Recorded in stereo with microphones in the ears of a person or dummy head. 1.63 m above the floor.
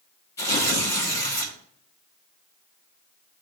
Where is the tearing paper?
20° left (ahead or behind), 1.7 m.